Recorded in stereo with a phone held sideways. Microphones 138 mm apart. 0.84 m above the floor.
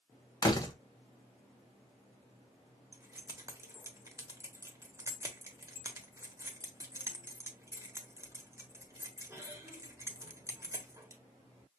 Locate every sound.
0.4 s a door slam: 30° left (ahead or behind), 1.1 m
2.9 s keys jangling: 20° right (ahead or behind), 1.2 m